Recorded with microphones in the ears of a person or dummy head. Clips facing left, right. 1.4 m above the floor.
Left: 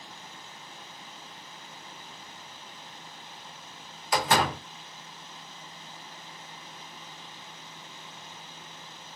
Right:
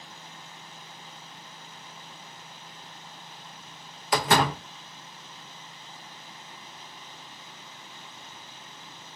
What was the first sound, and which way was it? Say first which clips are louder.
A door slam: right 2 dB; 55° right (ahead or behind).